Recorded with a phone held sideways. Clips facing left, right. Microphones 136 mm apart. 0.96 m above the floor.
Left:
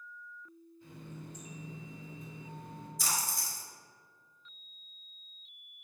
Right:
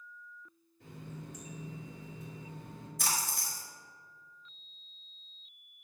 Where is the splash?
60° right (ahead or behind), 1.4 m.